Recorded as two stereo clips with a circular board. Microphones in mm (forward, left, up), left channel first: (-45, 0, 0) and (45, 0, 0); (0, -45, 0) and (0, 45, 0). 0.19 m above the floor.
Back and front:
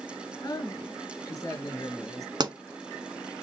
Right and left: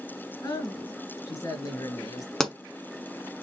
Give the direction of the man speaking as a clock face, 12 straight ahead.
4 o'clock.